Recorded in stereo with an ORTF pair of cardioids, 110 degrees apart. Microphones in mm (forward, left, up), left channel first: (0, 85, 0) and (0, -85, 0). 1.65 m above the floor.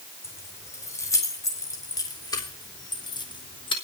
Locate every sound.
0.2 s keys jangling: 15° left, 4.5 m; by 3.7 s 30° left, 3 m